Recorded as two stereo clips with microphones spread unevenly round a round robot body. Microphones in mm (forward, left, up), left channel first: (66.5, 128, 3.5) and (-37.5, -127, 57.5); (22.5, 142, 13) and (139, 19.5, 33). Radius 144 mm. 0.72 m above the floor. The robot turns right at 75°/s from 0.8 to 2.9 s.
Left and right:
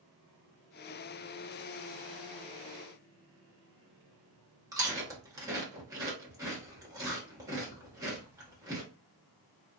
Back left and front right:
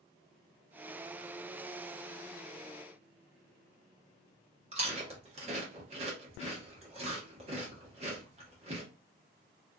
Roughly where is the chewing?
Ahead right.